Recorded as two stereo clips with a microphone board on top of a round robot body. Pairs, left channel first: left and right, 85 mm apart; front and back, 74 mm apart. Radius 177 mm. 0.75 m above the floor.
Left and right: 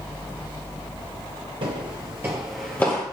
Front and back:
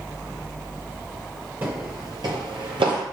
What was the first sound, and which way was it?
Footsteps, 115° right.